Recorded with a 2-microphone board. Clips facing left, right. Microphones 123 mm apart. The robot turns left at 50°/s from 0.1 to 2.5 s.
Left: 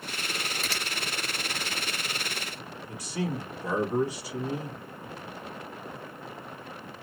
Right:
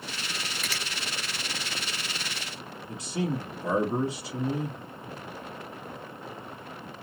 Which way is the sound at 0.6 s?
30° left (ahead or behind).